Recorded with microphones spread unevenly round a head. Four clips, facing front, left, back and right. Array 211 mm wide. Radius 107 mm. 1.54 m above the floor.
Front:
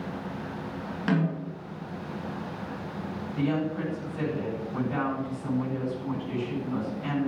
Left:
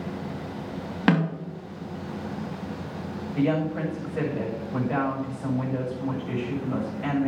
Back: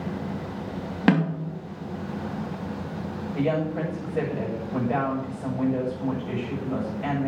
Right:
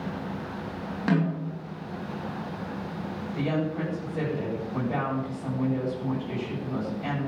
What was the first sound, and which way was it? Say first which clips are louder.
A snare drum: left 3 dB, back 5 dB; 155° left.